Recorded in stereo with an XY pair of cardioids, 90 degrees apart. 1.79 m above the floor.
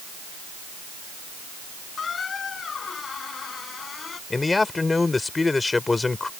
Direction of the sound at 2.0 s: 50° left.